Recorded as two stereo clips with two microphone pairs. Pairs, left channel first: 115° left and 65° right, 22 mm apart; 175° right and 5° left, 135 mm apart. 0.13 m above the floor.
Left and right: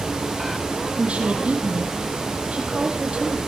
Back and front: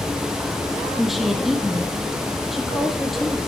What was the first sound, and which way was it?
A woman speaking, 85° right.